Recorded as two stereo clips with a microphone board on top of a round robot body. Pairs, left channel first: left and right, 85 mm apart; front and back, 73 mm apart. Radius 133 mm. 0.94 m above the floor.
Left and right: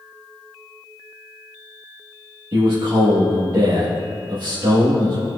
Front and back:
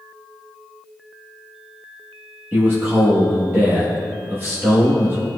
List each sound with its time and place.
2.5 s a man speaking: 120° right, 1.2 m